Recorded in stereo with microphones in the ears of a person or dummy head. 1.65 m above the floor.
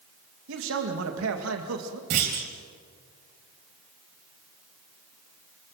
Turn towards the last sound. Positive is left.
turn(degrees=-35)  # may be behind; listen again after turning